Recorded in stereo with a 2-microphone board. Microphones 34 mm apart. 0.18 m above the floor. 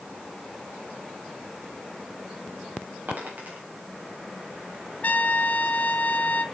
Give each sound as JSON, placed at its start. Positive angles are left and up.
{"t": 3.1, "sound": "a dropped coin", "side_deg": -50, "distance_m": 3.5}
{"t": 5.0, "sound": "a trumpet", "side_deg": 50, "distance_m": 0.5}